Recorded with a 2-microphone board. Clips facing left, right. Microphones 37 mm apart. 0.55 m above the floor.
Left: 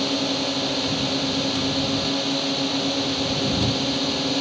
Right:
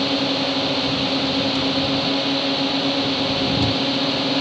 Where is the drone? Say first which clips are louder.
Right 3 dB; 20° right (ahead or behind).